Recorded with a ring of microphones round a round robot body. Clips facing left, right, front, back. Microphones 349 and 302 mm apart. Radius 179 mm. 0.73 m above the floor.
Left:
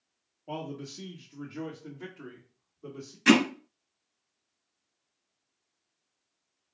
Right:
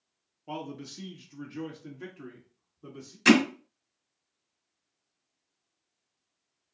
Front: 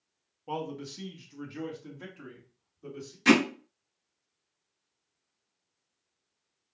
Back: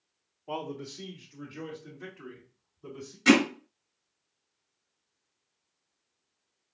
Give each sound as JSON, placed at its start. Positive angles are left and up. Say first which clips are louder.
{"t": 0.5, "sound": "a man speaking", "louder": "left 1 dB, front 1 dB", "azimuth_deg": -35, "distance_m": 1.0}
{"t": 3.2, "sound": "hammering", "louder": "right 1 dB, back 1 dB", "azimuth_deg": -65, "distance_m": 1.1}